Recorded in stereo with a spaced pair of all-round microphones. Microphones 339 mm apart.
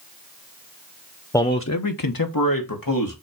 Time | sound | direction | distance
1.3 | a man speaking | 10° left (ahead or behind) | 0.7 m